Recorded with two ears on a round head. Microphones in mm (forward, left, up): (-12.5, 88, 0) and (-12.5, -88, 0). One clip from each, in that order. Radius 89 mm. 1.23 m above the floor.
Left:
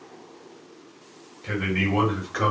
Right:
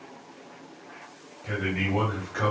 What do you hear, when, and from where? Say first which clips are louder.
1.4 s a man speaking: left 3 dB; 35° left (ahead or behind), 3 m